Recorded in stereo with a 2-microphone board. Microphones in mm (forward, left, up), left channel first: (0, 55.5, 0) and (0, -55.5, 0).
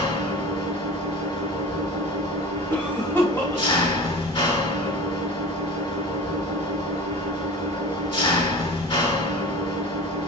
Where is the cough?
25° left (ahead or behind), 1.9 m.